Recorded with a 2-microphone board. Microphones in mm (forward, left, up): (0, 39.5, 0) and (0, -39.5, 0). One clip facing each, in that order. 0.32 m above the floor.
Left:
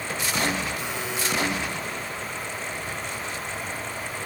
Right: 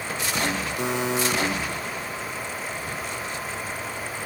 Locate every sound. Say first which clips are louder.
0.8 s a buzzer: right 5 dB; 55° right (ahead or behind), 7 m